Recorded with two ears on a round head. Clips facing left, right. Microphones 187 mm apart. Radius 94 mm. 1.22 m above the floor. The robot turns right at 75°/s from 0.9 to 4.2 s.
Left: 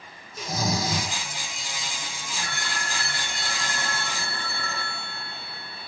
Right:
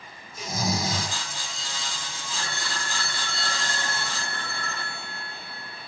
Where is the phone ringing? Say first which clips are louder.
Even; 130° right, 2.5 m; by 5.9 s 5° left, 2.5 m.